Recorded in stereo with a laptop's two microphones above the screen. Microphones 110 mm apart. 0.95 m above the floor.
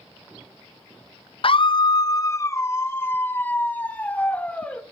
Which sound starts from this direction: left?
A scream, at 1.4 s.